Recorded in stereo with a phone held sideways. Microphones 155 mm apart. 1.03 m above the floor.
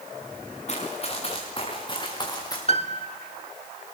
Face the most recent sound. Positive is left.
turn(degrees=40)  # may be behind; listen again after turning